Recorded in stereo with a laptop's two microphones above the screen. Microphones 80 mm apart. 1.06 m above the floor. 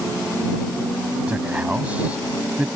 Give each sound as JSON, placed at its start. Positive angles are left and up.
{"t": 1.3, "sound": "a man speaking", "side_deg": -15}